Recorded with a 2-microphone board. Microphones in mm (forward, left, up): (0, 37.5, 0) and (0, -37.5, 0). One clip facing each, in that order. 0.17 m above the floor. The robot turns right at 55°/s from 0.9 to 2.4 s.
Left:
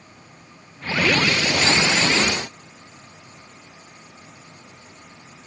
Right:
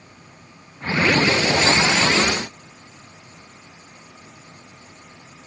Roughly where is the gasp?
I don't hear a gasp.